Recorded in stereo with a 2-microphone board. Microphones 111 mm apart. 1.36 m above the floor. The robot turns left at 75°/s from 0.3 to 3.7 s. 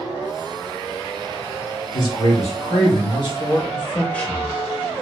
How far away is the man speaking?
About 1.4 m.